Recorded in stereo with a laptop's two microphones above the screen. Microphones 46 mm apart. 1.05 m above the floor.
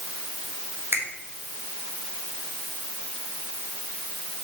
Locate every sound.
0.9 s a finger snap: 55° right (ahead or behind), 1.8 m